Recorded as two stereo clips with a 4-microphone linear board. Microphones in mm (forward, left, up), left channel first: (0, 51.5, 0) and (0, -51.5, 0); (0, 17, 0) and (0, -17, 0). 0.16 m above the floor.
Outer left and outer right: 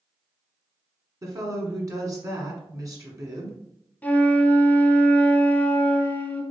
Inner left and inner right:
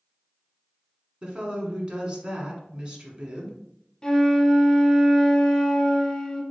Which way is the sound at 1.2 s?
35° right (ahead or behind).